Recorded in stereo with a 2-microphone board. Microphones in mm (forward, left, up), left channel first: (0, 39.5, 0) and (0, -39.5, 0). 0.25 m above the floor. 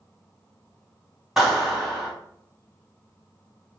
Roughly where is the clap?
Centre.